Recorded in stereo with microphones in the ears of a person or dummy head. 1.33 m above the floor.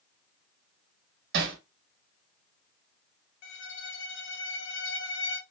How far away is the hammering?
About 1.2 m.